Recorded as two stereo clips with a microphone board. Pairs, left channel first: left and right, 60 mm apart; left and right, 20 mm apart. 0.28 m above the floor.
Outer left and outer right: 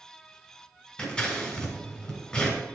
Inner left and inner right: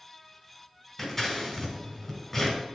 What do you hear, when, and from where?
1.0 s scissors: 15° left (ahead or behind), 1.6 m